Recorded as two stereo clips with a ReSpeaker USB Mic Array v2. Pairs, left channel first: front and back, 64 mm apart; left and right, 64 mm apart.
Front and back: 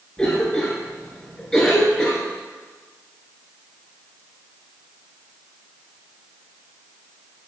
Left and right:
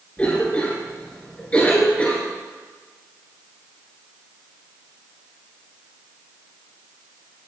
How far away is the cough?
About 1.3 m.